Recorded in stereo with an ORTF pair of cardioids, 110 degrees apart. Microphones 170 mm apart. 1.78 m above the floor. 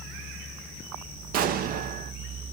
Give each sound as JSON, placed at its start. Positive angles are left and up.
{"t": 1.3, "sound": "an explosion", "azimuth_deg": -60, "distance_m": 0.6}